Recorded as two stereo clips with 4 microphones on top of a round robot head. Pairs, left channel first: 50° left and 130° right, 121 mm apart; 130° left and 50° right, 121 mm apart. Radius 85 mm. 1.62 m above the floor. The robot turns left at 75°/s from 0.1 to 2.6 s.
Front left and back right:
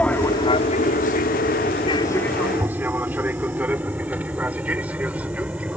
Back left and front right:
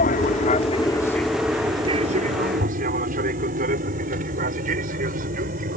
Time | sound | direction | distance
0.0 | an aircraft | 130° left | ?